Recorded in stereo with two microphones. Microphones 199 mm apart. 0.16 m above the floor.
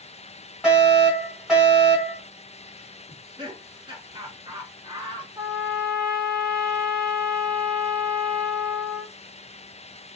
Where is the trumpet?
20° right (ahead or behind), 1.0 m.